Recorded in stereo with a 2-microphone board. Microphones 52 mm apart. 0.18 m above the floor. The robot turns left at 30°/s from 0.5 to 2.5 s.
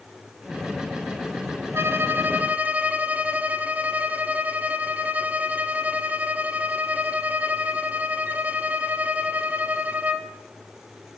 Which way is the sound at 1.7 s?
50° right (ahead or behind).